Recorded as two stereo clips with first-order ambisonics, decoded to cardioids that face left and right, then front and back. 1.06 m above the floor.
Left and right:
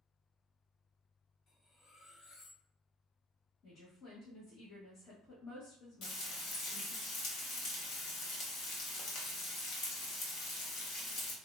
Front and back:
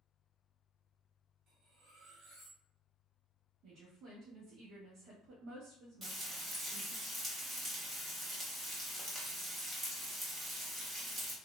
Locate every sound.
1.5 s cutlery clinking: 140° left, 0.8 m
3.6 s a woman speaking: 155° left, 1.0 m
6.0 s frying: 110° left, 0.8 m